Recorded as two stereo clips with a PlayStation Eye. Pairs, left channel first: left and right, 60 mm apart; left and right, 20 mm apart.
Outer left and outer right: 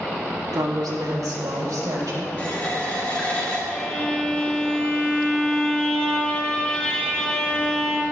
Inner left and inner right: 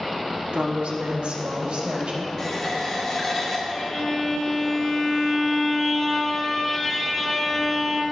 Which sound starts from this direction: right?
A woman speaking, at 0.5 s.